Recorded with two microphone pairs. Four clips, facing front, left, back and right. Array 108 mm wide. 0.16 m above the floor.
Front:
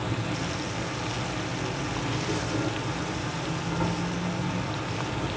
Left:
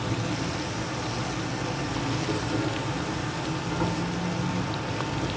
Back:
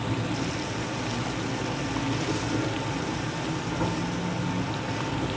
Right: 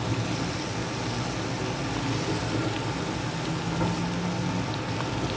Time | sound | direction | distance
0.0 | an insect | 85° left | 1.8 m